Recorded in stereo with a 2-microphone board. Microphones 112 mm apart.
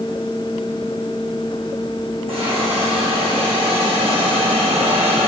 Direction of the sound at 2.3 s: 55° right (ahead or behind).